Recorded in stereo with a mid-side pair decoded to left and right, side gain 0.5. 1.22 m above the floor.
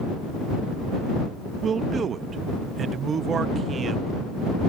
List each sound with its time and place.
1.6 s a man speaking: 45° right